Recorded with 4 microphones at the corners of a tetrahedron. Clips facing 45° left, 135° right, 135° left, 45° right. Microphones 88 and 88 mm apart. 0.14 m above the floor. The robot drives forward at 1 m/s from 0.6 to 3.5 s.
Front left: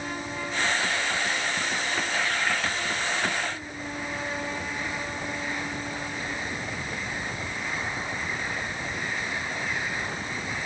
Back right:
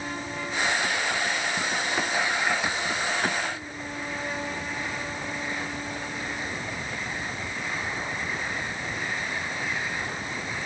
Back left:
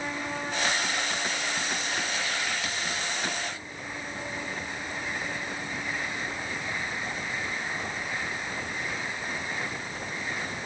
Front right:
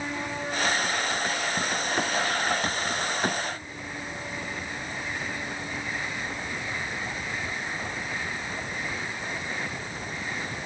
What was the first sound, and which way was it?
Only background noise.